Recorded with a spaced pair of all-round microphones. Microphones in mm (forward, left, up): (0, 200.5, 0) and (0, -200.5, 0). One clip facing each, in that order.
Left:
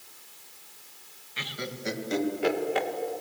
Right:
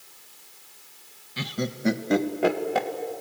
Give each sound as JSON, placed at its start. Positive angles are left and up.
{"t": 1.4, "sound": "laughter", "side_deg": -55, "distance_m": 1.8}